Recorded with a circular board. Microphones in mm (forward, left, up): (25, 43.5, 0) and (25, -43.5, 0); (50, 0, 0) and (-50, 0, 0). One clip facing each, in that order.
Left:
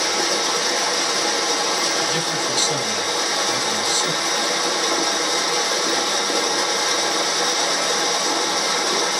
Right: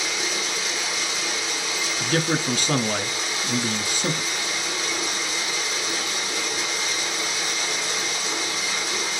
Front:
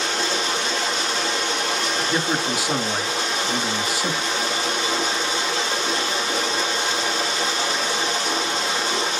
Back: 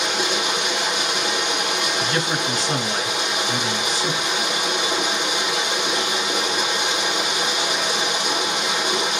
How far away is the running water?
About 2 m.